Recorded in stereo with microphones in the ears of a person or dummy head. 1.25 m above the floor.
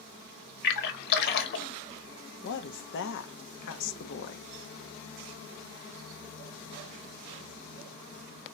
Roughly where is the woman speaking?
Left.